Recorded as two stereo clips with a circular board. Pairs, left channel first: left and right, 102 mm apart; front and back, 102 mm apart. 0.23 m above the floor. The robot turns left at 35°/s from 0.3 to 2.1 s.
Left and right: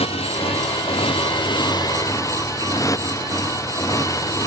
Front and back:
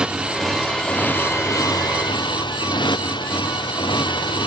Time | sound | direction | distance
0.0 | a motorcycle | 100° left | ?